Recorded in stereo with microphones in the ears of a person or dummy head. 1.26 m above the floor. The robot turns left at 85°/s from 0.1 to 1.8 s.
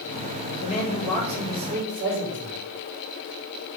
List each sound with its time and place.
0.6 s a man speaking: 45° left, 3.5 m; by 2.6 s 55° right, 3.5 m